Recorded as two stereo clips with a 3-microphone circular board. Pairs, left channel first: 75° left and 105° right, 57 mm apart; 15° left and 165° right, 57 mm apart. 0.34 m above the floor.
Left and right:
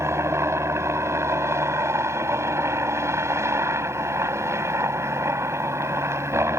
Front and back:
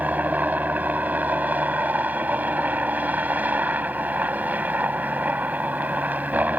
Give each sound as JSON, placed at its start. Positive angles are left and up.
{"t": 0.0, "sound": "a helicopter", "azimuth_deg": -110}